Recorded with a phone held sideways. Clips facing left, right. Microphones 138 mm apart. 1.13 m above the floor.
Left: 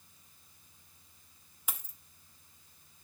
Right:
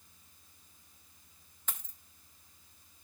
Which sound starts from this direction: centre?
A dropped coin, at 1.7 s.